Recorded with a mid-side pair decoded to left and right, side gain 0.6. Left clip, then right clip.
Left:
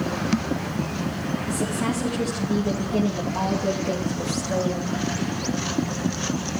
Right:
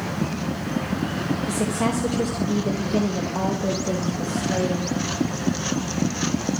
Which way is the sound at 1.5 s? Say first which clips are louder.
Right 2 dB; 45° right.